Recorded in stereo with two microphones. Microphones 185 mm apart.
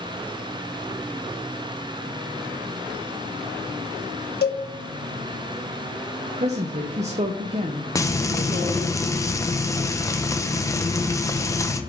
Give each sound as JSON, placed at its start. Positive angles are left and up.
{"t": 4.4, "sound": "a cowbell", "side_deg": 65, "distance_m": 1.3}
{"t": 6.4, "sound": "a woman speaking", "side_deg": -40, "distance_m": 0.7}
{"t": 8.0, "sound": "frying", "side_deg": 15, "distance_m": 0.7}